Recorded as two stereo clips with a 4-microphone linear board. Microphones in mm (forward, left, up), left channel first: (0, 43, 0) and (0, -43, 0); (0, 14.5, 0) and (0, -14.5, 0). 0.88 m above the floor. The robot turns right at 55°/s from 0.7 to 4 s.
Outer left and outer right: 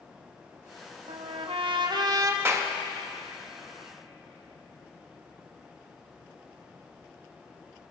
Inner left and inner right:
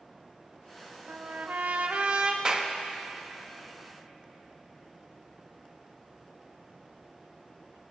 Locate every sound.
1.1 s a trumpet: 100° right, 0.7 m; by 2.4 s 30° right, 0.7 m
2.5 s a clap: 25° right (ahead or behind), 0.8 m; by 2.7 s 40° right (ahead or behind), 0.8 m